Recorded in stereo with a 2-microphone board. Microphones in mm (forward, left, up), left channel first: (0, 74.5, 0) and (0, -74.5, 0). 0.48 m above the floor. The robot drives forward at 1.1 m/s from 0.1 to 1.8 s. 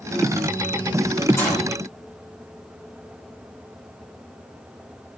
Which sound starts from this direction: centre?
A gunshot, at 1.4 s.